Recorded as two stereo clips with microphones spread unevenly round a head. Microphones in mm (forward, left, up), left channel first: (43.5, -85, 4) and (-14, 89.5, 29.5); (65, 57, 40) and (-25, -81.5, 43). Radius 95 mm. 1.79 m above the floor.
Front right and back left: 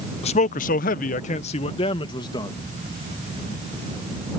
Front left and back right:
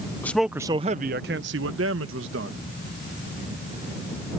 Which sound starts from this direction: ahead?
A man speaking, at 0.2 s.